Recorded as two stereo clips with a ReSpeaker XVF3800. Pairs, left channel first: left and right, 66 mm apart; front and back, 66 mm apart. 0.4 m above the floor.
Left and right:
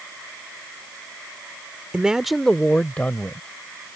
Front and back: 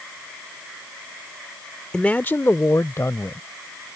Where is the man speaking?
50° right; by 4.0 s 30° left.